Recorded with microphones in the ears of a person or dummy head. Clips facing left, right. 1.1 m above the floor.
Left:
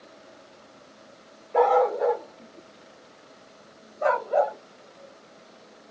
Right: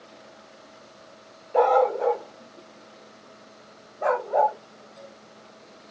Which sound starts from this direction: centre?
A dog barking, at 1.5 s.